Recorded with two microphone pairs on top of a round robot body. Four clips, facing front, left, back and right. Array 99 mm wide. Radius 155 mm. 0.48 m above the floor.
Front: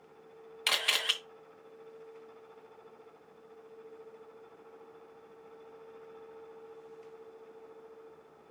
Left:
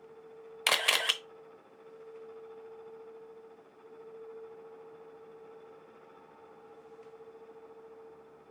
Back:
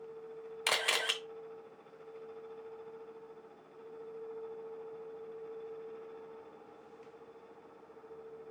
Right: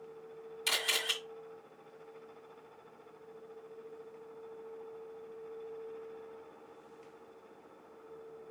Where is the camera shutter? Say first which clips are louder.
Left 6 dB, even; 100° left, 0.8 m.